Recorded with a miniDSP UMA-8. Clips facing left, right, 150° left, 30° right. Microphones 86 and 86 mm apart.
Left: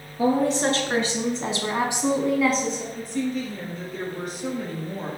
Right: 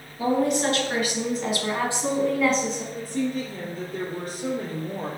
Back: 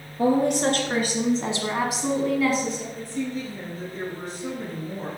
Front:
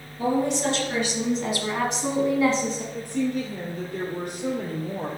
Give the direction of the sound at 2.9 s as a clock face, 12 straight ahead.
1 o'clock.